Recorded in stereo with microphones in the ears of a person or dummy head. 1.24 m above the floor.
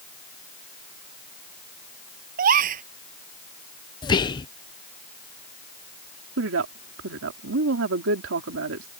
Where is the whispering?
20° left (ahead or behind).